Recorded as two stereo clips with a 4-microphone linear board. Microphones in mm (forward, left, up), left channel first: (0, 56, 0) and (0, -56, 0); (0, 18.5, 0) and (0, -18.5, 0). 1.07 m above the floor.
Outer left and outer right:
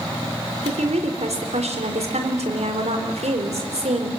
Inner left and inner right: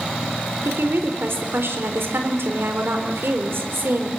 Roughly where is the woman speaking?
Right.